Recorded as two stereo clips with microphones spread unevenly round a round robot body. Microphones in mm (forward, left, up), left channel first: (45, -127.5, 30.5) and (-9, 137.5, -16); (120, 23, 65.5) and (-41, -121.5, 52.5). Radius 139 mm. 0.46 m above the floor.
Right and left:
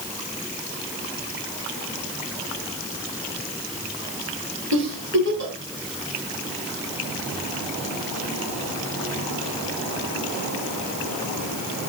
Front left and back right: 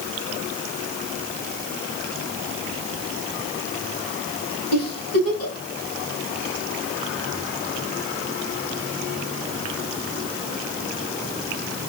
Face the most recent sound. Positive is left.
turn(degrees=60)